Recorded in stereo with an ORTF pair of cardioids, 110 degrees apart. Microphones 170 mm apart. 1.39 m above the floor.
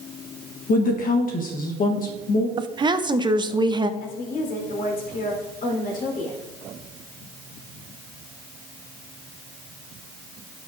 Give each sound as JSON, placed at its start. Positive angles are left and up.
{"t": 0.7, "sound": "a woman speaking", "azimuth_deg": 55, "distance_m": 1.2}
{"t": 2.6, "sound": "a woman speaking", "azimuth_deg": -25, "distance_m": 0.7}
{"t": 4.0, "sound": "a woman speaking", "azimuth_deg": 55, "distance_m": 4.0}